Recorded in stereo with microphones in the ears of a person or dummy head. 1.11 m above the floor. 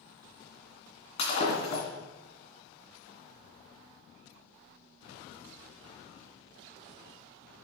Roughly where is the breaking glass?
Left.